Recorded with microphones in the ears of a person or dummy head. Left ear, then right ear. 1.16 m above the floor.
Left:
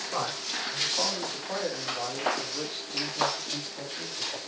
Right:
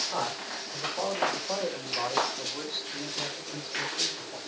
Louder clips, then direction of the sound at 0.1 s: Left 1 dB; 20° right (ahead or behind).